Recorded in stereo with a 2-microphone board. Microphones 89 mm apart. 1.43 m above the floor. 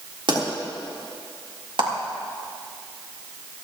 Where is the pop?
70° right (ahead or behind), 3.5 m.